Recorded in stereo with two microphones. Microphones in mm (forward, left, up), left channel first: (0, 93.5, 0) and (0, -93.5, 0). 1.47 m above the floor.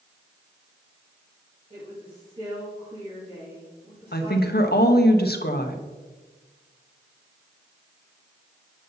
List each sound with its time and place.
1.7 s a woman speaking: 30° right (ahead or behind), 2.5 m
4.1 s a woman speaking: 60° left (ahead or behind), 1.0 m